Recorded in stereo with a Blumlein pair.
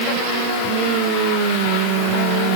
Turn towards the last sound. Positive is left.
No sound to turn to.